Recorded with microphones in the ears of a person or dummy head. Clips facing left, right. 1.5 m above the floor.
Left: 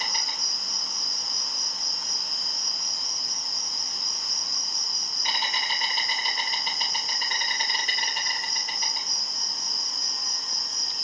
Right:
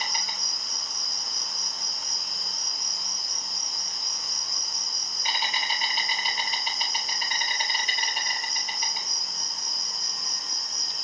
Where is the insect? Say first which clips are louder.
Even; 40° left (ahead or behind), 2 m.